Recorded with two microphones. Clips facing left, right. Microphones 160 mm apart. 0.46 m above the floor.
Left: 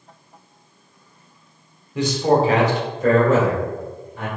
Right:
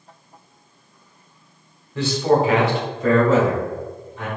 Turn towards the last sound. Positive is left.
turn(degrees=60)  # may be behind; listen again after turning